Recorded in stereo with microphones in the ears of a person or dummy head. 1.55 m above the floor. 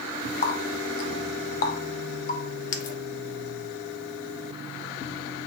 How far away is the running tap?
About 1.1 m.